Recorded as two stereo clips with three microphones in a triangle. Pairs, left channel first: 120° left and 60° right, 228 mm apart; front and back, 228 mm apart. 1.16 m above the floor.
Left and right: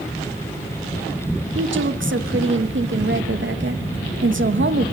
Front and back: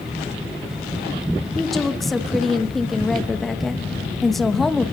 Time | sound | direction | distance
1.6 | a woman speaking | 90° right | 1.1 m